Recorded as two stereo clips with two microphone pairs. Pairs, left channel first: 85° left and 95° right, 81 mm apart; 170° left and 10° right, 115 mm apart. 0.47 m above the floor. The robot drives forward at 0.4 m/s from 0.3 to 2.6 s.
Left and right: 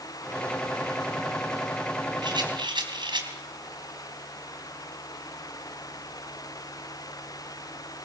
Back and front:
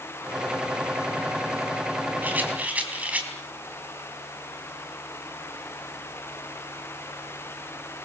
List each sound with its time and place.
2.2 s a rattle: 85° right, 3.5 m; by 3.3 s 90° right, 3.5 m